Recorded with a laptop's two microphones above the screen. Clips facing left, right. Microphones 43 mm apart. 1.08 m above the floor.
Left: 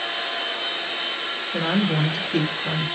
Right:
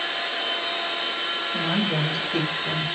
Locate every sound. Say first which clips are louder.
1.5 s a woman speaking: left 4 dB; 60° left (ahead or behind), 1.9 m; by 2.9 s 40° left (ahead or behind), 2 m